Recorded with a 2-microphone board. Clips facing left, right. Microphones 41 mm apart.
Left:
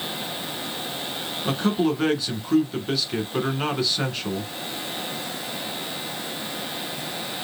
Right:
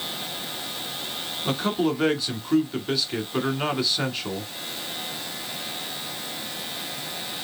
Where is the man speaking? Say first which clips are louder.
Left 2 dB; centre (ahead or behind), 1.2 m.